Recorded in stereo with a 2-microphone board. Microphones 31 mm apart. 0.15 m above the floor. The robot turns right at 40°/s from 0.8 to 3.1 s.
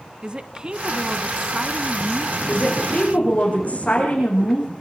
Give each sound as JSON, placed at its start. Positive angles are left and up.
{"t": 0.2, "sound": "a woman speaking", "side_deg": -30, "distance_m": 1.1}
{"t": 2.5, "sound": "a woman speaking", "side_deg": 30, "distance_m": 9.5}